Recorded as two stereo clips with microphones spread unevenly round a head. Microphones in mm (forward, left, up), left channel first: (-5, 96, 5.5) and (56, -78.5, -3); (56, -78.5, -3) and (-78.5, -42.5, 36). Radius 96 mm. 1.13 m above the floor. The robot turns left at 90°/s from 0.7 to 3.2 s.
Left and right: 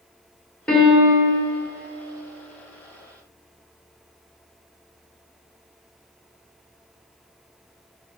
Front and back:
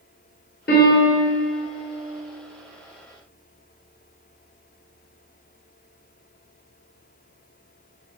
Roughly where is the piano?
Ahead left.